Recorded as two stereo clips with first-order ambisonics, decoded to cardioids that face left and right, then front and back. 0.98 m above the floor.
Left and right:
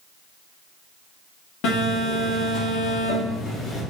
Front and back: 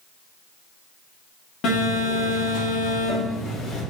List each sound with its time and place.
1.6 s a phone buzzing: 50° left, 2.5 m